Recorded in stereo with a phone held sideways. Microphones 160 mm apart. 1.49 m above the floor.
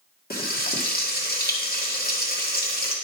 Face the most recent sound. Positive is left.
turn(degrees=75)  # may be behind; listen again after turning